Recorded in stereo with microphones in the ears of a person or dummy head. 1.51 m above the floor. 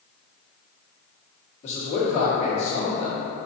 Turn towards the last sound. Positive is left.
turn(degrees=45)  # may be behind; listen again after turning